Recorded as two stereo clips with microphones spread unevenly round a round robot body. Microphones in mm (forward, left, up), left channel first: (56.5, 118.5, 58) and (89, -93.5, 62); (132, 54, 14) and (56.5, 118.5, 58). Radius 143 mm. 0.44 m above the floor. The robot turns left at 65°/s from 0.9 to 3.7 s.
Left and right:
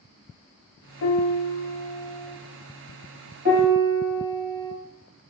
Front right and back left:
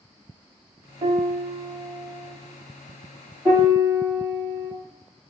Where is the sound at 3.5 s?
140° right, 0.9 m; by 4.7 s 155° right, 0.9 m.